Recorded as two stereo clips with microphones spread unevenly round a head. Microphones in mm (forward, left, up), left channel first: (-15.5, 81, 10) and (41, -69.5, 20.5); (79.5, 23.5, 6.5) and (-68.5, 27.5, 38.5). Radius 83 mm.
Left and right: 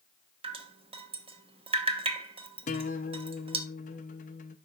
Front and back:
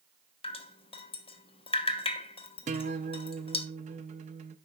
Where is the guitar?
155° left, 0.8 m.